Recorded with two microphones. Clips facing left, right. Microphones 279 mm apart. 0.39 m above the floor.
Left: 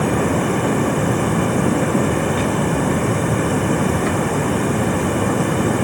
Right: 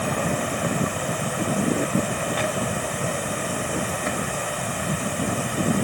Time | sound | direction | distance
0.0 | running water | 85° left | ?